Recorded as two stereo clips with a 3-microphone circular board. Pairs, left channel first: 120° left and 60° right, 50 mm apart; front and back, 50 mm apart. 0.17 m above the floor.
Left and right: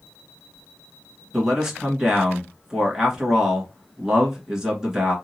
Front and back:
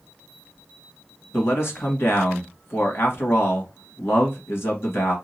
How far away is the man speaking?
About 1.9 m.